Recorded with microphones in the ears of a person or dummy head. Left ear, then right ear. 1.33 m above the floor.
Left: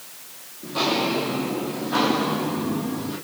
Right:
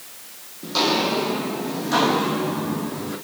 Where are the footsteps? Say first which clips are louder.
Right 2 dB; 65° right (ahead or behind), 3 m; by 3.1 s 70° right (ahead or behind), 5 m.